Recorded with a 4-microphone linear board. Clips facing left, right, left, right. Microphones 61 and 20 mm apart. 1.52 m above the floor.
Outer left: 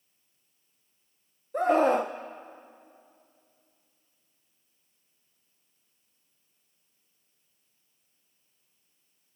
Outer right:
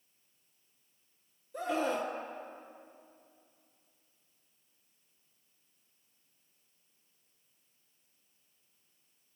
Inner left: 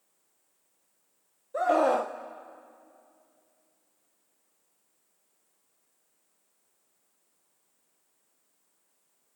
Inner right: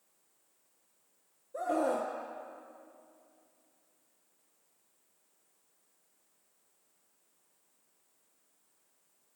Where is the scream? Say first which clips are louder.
Outer left 10 dB, inner left 7 dB; 50° left (ahead or behind), 0.7 m.